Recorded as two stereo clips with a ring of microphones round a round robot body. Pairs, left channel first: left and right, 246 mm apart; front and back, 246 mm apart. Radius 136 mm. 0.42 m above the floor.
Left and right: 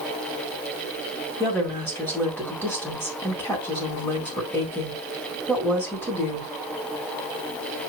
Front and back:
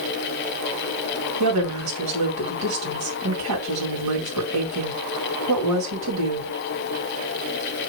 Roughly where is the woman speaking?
Behind.